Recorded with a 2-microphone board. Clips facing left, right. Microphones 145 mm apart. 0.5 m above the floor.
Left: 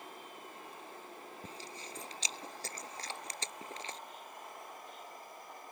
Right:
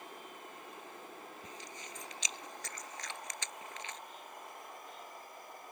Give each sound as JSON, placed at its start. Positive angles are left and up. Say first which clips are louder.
{"t": 1.4, "sound": "chewing", "louder": "left 1 dB", "side_deg": 35}